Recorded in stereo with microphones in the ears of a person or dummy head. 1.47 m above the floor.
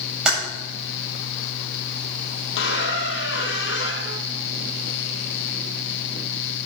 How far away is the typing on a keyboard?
About 7.5 m.